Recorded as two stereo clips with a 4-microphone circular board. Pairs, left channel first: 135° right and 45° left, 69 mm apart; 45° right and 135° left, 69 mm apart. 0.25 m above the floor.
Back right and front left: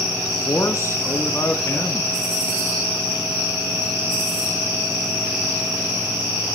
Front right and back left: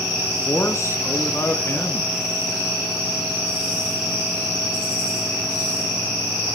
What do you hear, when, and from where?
0.3 s a man speaking: 90° right, 1.9 m